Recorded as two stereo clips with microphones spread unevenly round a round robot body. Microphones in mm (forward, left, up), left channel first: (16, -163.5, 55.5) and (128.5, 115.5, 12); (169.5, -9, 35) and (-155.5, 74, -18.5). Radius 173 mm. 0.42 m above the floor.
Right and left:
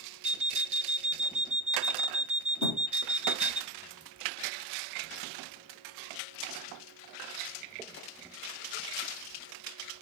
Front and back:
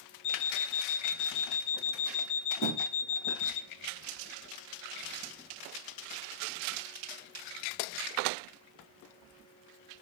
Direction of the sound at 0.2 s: 15° right.